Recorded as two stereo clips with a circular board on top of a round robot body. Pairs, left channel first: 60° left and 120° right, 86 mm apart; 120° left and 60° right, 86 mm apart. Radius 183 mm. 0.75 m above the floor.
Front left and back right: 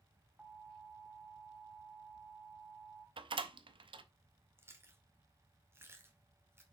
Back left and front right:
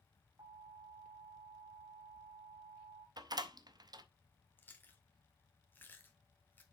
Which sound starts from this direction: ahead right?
An alarm, at 0.4 s.